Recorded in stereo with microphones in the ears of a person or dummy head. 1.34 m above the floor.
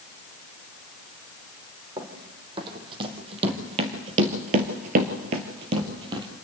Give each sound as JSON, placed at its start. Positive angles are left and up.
{"t": 2.0, "sound": "running footsteps", "side_deg": -30, "distance_m": 3.5}